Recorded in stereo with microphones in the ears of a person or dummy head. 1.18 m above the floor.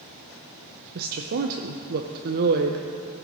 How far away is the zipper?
No zipper in this recording.